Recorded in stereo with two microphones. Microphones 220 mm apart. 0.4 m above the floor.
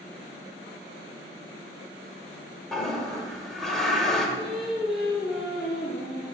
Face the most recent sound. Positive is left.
turn(degrees=0)  # may be behind; listen again after turning